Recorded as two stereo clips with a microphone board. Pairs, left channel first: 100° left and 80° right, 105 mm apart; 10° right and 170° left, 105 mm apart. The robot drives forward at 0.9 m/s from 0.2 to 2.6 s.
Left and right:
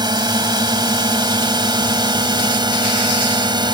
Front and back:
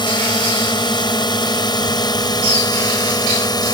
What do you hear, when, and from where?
0.0 s a drone: 45° right; by 3.8 s 50° right